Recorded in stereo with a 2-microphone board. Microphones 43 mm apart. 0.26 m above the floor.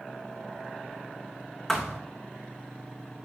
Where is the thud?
10° left (ahead or behind), 1.9 m.